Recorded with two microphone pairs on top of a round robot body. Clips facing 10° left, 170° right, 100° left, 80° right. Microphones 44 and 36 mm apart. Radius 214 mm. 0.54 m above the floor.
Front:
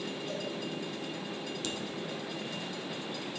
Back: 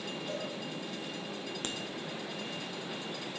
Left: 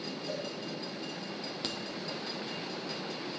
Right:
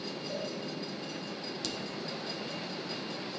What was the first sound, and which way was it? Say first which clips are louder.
A cowbell: back 1 dB, even; 135° left.